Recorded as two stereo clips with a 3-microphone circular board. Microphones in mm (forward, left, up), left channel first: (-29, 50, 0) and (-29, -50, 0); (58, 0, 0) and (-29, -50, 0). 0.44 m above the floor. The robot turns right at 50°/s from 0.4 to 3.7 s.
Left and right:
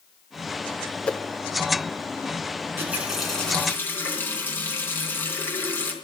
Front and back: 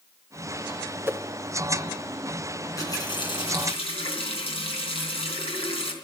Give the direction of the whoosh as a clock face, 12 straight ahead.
7 o'clock.